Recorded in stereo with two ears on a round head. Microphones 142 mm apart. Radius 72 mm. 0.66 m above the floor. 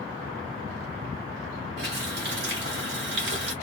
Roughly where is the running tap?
Right.